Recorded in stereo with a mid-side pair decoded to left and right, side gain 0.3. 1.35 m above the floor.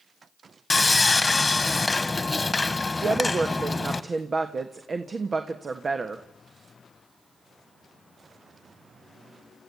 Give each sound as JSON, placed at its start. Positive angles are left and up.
{"t": 0.7, "sound": "sawing", "azimuth_deg": 30, "distance_m": 1.4}
{"t": 3.0, "sound": "a woman speaking", "azimuth_deg": -50, "distance_m": 1.5}